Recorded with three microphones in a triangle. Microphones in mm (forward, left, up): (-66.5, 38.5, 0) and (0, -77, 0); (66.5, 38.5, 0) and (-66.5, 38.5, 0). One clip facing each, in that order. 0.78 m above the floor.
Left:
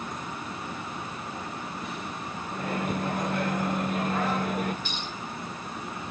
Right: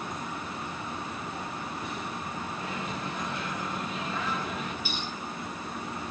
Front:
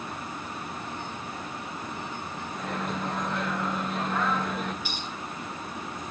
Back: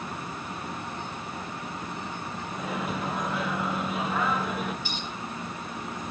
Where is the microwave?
95° left, 0.6 m.